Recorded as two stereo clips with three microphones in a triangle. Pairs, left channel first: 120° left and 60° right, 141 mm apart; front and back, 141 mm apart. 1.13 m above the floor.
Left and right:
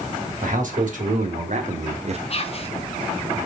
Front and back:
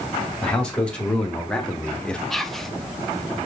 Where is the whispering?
85° left, 0.7 m.